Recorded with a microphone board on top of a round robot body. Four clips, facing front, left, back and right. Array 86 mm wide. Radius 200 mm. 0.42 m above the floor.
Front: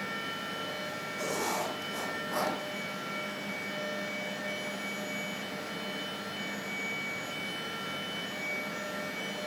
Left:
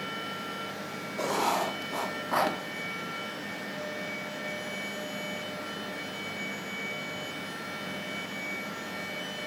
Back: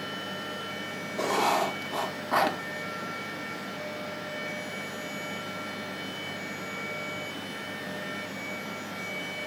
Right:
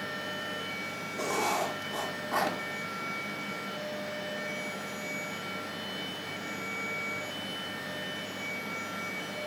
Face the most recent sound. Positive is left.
turn(degrees=155)